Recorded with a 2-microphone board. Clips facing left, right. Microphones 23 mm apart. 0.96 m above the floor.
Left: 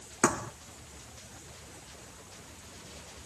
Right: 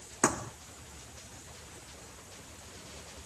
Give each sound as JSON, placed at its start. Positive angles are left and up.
{"t": 0.2, "sound": "a thud", "side_deg": 15}